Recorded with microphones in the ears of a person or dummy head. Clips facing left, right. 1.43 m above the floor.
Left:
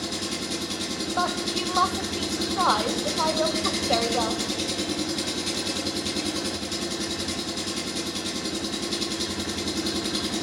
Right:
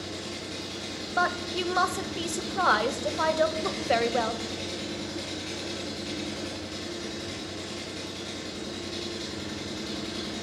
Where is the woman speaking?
20° right (ahead or behind), 1.0 m.